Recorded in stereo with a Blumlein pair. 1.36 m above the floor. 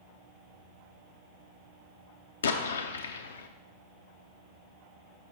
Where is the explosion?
65° left, 0.5 m.